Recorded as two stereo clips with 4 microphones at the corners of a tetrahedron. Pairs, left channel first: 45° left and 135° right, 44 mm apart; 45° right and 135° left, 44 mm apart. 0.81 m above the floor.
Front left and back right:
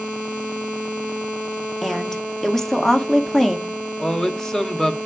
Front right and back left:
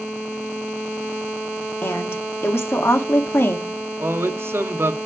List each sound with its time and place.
1.8 s a woman speaking: 40° right, 1.4 m
4.0 s a man speaking: 120° left, 1.2 m